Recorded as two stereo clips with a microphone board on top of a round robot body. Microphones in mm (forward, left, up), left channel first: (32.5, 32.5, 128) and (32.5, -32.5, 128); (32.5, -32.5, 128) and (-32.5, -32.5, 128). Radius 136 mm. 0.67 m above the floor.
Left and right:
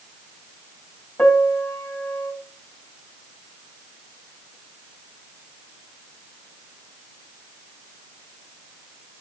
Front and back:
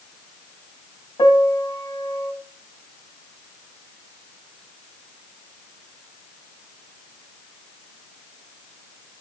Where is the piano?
20° left, 2 m.